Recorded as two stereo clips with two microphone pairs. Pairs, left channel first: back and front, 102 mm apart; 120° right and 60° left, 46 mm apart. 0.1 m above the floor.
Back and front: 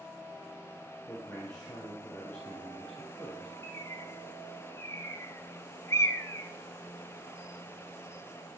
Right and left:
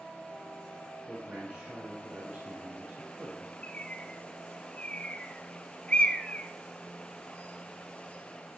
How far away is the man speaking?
About 3 m.